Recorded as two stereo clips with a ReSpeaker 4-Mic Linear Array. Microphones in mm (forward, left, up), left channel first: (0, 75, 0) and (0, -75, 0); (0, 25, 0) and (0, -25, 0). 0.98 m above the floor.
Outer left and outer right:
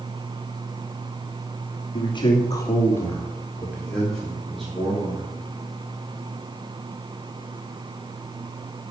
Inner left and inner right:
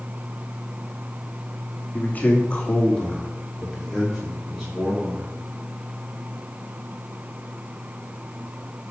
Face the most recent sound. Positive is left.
turn(degrees=-5)  # may be behind; listen again after turning